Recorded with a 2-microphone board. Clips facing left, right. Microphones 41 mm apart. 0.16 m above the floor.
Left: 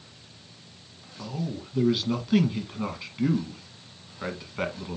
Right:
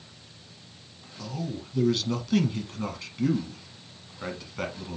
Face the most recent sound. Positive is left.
turn(degrees=15)  # may be behind; listen again after turning